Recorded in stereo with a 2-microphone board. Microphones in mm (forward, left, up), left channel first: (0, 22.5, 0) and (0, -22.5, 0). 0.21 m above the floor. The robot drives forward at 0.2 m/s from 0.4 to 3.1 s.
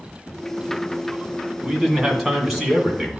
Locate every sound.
1.6 s a man speaking: 5° right (ahead or behind), 1.8 m